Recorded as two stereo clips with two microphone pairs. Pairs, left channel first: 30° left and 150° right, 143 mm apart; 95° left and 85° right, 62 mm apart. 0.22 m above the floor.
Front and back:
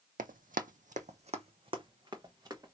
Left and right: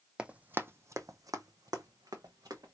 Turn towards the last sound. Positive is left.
turn(degrees=-85)